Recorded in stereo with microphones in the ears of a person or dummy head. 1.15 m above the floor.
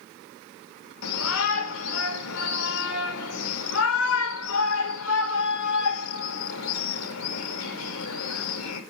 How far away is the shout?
About 1.5 m.